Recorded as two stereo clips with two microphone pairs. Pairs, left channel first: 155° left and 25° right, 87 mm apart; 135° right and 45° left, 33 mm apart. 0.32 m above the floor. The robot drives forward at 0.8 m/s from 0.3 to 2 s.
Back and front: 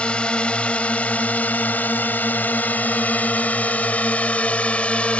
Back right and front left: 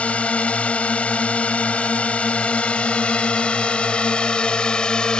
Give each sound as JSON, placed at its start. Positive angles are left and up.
{"t": 0.0, "sound": "a drone", "azimuth_deg": -135}